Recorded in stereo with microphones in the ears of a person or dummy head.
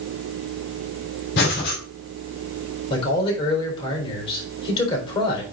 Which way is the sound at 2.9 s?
30° left (ahead or behind).